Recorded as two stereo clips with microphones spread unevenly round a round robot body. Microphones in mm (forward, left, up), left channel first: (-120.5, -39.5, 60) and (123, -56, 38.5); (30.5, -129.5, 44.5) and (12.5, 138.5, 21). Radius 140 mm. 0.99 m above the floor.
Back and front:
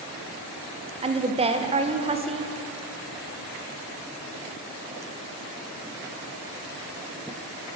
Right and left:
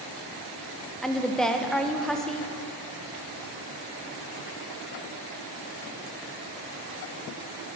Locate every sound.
1.0 s a woman speaking: 10° left, 0.7 m